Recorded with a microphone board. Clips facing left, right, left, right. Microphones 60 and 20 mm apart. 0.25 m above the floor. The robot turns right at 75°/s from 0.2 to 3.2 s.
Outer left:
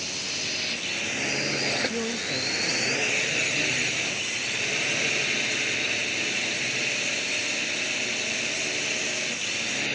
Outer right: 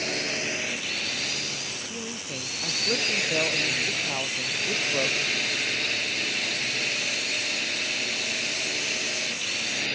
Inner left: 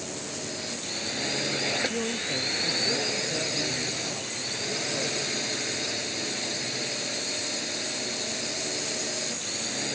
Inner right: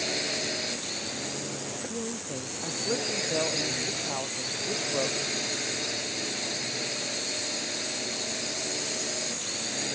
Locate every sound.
0.0 s a drone: 50° right; by 10.0 s 175° left
1.9 s a man speaking: 145° left; by 5.2 s 120° right